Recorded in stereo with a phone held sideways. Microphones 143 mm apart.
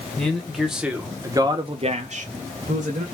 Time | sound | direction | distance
0.2 | a man speaking | 5° left (ahead or behind) | 1.1 m